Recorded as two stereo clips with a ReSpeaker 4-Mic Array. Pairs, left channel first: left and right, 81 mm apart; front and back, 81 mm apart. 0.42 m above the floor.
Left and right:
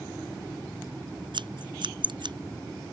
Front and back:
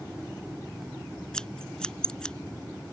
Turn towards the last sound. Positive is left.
turn(degrees=-80)